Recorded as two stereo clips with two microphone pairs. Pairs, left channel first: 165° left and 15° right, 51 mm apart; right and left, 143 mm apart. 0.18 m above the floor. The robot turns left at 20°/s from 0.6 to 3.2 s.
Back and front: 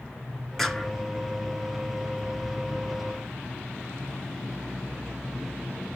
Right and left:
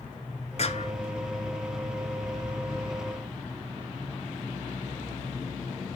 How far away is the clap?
About 1.8 m.